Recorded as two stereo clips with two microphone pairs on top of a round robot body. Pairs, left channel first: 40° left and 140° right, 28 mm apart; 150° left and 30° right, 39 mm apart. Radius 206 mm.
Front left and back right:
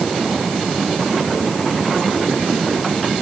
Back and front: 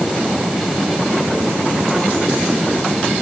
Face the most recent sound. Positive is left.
No sound to turn to.